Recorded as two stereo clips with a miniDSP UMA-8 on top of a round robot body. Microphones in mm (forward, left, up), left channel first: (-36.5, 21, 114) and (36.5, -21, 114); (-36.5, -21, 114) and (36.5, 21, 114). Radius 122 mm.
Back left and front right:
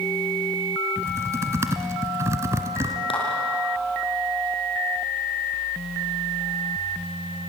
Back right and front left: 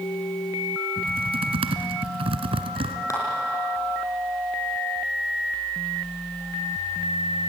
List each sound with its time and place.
1.0 s typing on a keyboard: 30° left, 1.4 m
3.1 s a clap: 155° left, 6 m